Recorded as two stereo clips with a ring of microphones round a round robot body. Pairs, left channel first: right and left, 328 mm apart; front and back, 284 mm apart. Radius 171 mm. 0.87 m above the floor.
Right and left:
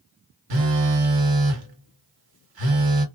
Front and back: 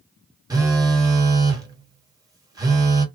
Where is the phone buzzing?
100° left, 1.4 m.